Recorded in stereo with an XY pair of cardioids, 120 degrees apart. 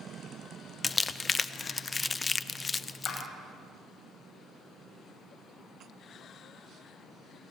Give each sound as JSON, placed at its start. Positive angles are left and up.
{"t": 0.8, "sound": "crumpling", "azimuth_deg": 25, "distance_m": 0.8}
{"t": 3.0, "sound": "a clap", "azimuth_deg": 50, "distance_m": 8.5}